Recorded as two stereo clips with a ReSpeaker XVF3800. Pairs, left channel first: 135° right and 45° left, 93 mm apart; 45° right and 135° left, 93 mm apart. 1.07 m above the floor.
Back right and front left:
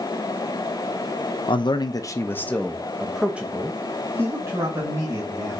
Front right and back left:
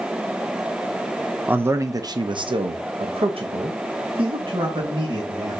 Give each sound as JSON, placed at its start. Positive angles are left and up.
{"t": 1.5, "sound": "a man speaking", "azimuth_deg": -155, "distance_m": 0.7}